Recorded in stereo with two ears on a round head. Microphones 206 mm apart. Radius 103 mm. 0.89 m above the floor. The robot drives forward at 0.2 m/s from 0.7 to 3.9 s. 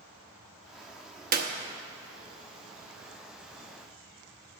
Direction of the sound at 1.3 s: 40° right (ahead or behind).